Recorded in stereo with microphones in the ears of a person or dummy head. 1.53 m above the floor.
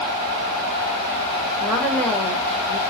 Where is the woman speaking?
10° left (ahead or behind), 1.1 m.